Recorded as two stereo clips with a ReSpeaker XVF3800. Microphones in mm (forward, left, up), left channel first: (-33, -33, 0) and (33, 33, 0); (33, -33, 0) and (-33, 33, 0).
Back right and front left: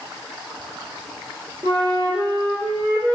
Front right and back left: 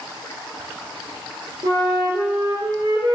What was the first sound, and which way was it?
A flute, 95° left.